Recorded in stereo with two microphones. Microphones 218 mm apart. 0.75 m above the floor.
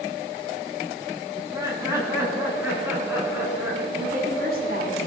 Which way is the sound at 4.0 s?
45° right (ahead or behind).